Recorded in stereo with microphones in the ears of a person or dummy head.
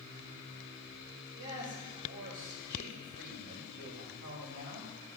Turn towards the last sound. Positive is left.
turn(degrees=-50)  # may be behind; listen again after turning